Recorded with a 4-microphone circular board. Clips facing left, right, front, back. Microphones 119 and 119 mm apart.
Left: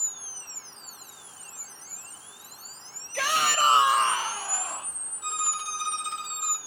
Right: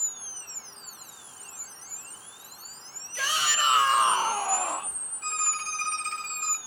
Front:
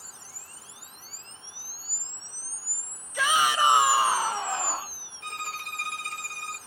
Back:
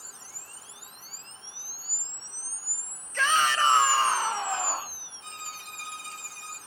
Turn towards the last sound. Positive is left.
turn(degrees=15)